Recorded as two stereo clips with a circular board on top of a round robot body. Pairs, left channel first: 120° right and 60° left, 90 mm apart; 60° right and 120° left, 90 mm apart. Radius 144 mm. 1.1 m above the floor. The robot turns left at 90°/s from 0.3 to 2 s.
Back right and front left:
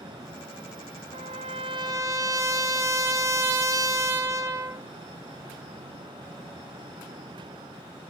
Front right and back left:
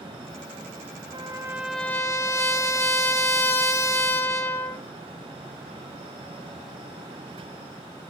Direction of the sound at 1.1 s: 80° left.